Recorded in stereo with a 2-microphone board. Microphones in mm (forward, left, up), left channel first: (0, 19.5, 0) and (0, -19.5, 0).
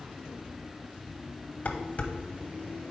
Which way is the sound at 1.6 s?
40° left (ahead or behind).